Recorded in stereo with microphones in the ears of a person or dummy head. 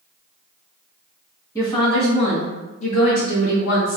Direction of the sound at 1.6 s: 20° left (ahead or behind).